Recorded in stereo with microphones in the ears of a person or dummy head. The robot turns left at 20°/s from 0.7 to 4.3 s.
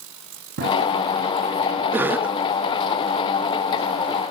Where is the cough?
10° right (ahead or behind), 0.6 m; by 2.4 s centre (ahead or behind), 0.6 m.